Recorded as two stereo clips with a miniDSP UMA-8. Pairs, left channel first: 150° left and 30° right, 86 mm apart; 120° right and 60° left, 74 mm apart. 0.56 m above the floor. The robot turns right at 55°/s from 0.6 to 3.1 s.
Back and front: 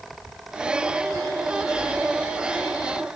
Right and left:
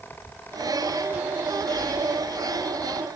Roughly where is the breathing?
Behind right.